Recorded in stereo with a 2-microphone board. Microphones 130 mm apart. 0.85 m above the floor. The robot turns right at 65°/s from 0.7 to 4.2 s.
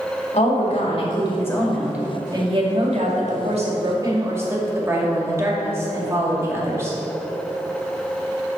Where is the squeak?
No squeak in this recording.